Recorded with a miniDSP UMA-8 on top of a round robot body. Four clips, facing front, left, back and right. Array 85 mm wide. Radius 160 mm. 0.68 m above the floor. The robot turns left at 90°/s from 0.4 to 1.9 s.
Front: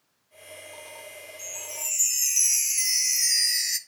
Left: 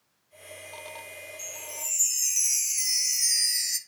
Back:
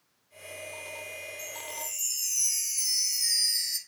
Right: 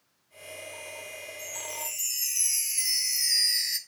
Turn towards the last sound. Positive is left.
turn(degrees=-10)